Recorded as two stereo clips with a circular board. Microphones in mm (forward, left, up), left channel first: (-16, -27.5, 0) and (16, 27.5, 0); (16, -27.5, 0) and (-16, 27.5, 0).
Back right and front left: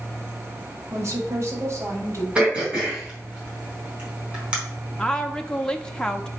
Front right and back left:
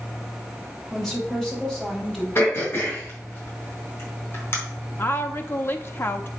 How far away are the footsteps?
I don't hear footsteps.